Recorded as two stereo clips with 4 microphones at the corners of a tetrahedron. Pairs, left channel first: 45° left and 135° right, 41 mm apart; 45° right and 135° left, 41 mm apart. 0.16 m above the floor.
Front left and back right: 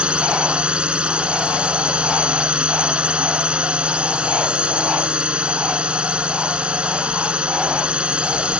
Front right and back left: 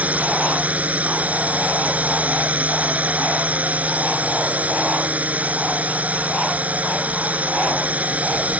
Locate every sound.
0.0 s a drone: 170° left